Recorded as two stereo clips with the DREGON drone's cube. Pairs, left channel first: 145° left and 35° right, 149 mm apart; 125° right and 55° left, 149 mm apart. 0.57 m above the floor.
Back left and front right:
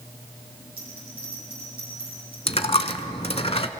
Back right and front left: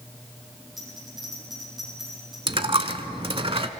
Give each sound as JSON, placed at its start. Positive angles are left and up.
{"t": 0.8, "sound": "a bell", "azimuth_deg": -35, "distance_m": 7.5}
{"t": 2.5, "sound": "a dropped coin", "azimuth_deg": 105, "distance_m": 0.8}